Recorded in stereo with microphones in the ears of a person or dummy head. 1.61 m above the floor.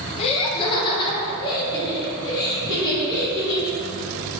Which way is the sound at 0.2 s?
30° left (ahead or behind).